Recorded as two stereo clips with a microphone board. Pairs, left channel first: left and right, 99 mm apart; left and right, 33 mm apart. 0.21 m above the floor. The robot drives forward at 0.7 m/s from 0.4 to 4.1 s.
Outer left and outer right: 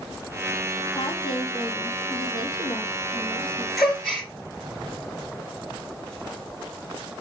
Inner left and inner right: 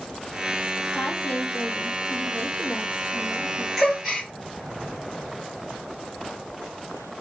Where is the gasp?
Centre (ahead or behind), 3.5 m.